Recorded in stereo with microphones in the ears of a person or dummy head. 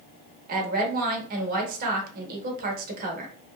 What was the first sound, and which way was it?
A woman speaking, 55° right (ahead or behind).